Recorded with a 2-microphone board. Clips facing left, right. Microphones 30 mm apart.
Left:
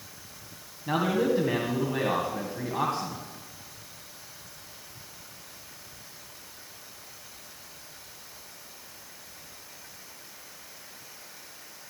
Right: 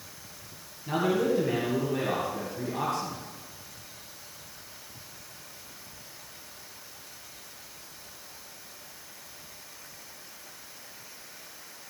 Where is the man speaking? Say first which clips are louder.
Left 1 dB; 25° left (ahead or behind), 2.0 m.